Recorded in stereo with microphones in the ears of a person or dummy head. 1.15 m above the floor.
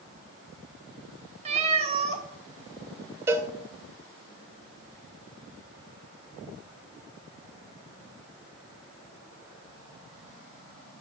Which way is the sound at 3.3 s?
10° right (ahead or behind).